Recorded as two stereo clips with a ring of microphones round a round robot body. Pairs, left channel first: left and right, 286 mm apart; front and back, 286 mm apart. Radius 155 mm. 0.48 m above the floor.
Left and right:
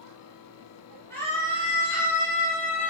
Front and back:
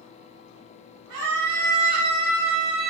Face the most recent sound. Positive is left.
turn(degrees=145)